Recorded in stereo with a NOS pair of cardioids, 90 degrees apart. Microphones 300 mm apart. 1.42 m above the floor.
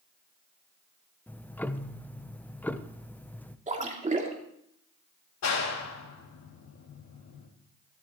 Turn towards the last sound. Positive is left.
turn(degrees=55)